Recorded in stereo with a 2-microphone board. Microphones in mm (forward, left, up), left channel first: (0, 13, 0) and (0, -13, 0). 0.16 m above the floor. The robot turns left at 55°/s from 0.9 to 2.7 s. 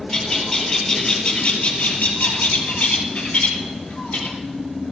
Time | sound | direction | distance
0.1 | a bird | 160° left | 2.5 m